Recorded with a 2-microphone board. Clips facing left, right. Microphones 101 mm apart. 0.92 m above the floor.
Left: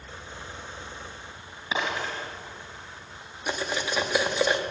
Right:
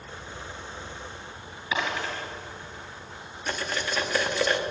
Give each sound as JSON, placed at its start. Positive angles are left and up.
{"t": 1.7, "sound": "a dropped coin", "side_deg": 25, "distance_m": 4.5}
{"t": 3.5, "sound": "cutlery clinking", "side_deg": 15, "distance_m": 0.8}